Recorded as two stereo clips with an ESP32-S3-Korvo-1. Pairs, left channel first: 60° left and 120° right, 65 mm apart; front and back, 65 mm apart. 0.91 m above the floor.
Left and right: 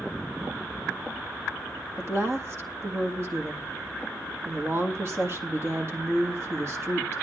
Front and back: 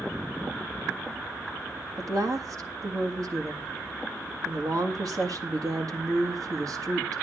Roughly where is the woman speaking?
Behind.